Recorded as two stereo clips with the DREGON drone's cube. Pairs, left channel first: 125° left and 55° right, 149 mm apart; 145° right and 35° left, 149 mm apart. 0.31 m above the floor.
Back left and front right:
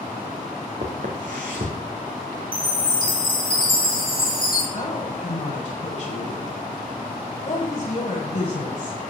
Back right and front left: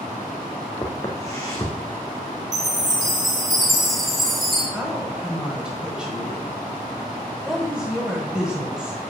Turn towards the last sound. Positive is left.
turn(degrees=115)